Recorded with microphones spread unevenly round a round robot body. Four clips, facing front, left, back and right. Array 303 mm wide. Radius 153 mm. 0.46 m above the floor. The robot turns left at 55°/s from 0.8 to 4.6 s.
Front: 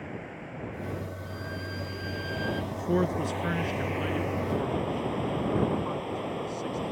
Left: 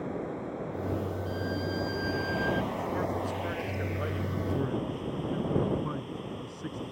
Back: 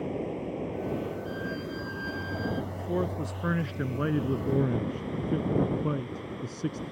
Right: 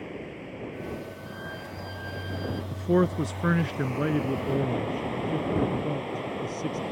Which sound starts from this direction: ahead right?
A man speaking, at 2.7 s.